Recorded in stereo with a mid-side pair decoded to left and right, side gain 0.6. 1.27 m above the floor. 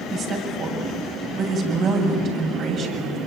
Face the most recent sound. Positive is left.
turn(degrees=-50)